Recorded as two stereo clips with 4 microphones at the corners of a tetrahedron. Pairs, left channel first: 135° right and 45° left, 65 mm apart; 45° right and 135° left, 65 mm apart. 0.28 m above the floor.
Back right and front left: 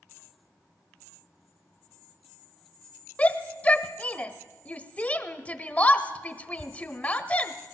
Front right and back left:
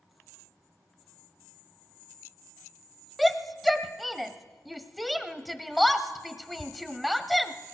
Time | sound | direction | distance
3.2 | a shout | 130° right | 1.0 m